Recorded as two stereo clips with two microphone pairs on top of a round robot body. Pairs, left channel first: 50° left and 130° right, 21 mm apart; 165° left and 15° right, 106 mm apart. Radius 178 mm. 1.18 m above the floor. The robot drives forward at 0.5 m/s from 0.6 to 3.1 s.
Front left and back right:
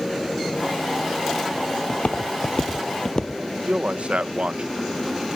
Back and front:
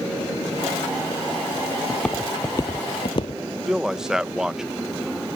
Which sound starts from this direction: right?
A man speaking, at 3.7 s.